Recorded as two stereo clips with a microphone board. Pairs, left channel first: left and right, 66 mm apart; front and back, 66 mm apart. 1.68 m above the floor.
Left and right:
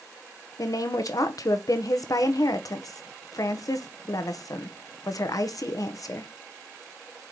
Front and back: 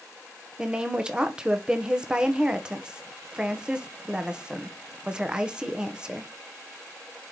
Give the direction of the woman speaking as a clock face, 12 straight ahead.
9 o'clock.